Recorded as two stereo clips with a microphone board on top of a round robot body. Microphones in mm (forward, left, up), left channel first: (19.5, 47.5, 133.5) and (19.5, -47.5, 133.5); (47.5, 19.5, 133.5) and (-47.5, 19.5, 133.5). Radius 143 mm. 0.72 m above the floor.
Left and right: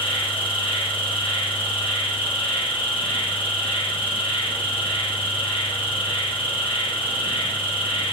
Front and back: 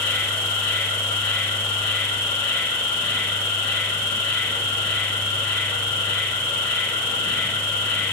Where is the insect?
65° left, 1.0 m.